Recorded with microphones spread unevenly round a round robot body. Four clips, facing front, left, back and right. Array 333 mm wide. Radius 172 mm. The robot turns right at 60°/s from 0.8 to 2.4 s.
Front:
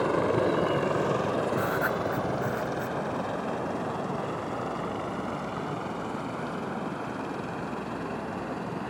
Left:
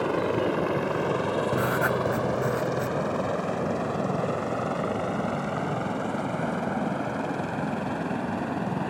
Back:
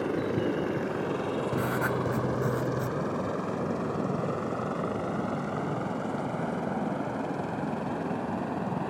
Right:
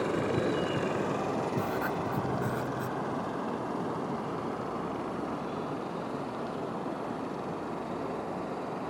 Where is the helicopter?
30° left; by 8.9 s 105° left.